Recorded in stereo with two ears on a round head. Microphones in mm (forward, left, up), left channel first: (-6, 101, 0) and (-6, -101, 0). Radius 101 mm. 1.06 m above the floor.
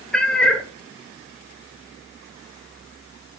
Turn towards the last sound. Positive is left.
turn(degrees=5)  # may be behind; listen again after turning